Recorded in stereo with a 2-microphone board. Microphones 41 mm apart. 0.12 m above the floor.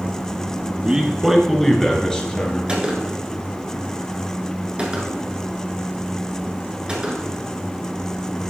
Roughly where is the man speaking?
Centre.